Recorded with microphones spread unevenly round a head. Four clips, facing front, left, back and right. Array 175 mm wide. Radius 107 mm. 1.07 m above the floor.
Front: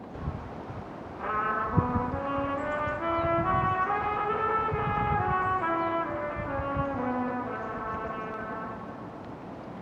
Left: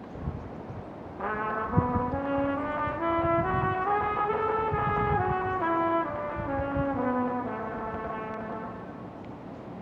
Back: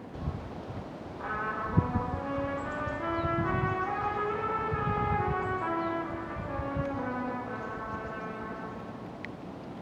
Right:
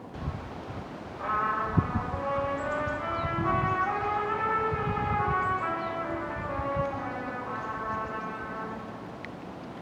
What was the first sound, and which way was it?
A trumpet, 75° left.